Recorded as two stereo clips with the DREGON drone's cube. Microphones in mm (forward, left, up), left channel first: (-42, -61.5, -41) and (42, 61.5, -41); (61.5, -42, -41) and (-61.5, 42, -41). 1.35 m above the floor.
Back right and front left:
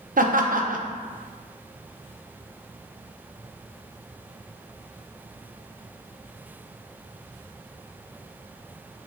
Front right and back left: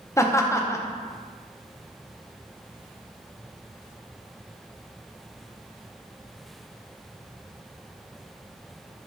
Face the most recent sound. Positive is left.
turn(degrees=35)